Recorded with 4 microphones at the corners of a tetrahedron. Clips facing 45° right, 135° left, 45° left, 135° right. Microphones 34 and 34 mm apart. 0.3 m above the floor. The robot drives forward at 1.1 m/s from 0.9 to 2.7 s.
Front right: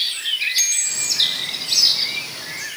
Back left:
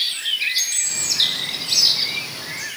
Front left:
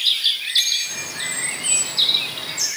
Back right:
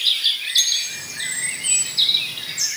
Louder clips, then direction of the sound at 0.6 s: Front right 1 dB, even; 15° right.